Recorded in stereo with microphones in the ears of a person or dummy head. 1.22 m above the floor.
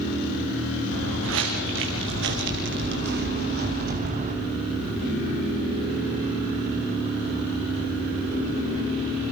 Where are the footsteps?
70° right (ahead or behind), 5 m; by 4.4 s 35° right (ahead or behind), 3 m.